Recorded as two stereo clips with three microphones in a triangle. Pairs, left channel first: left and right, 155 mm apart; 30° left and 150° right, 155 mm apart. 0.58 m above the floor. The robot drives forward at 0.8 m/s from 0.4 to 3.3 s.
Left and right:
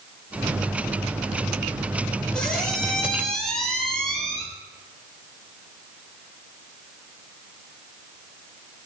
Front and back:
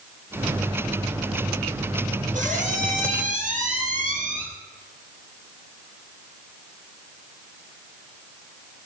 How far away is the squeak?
About 3 m.